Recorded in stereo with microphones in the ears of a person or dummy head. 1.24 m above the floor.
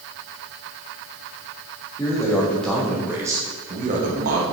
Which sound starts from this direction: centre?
A man speaking, at 2.0 s.